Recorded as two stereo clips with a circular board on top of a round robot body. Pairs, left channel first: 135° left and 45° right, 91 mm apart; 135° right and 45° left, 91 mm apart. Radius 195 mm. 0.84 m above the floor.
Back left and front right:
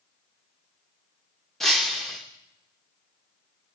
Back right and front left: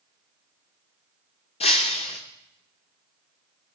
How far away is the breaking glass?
About 0.7 m.